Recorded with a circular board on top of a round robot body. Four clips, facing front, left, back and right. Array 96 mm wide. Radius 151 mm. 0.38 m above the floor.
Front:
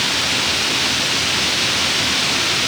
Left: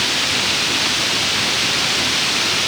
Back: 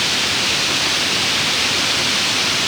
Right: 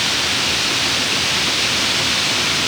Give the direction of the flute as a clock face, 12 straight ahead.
No flute in this recording.